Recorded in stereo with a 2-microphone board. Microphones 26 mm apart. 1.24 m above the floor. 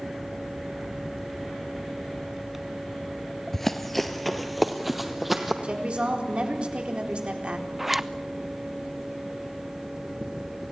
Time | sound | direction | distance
3.5 | running footsteps | 15° left (ahead or behind) | 1.4 m
5.6 | a woman speaking | 45° right (ahead or behind) | 4 m
7.8 | a zipper | 10° right (ahead or behind) | 0.7 m